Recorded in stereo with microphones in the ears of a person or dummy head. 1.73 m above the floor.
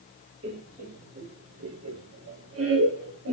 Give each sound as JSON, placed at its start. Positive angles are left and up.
{"t": 0.4, "sound": "laughter", "side_deg": -35, "distance_m": 1.2}